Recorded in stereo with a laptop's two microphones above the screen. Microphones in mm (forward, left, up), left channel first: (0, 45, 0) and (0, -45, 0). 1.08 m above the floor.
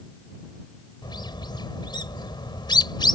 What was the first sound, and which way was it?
A bird, 55° left (ahead or behind).